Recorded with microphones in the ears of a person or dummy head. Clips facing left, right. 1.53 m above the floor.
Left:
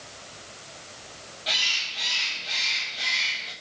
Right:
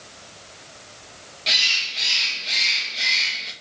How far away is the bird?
About 1.4 m.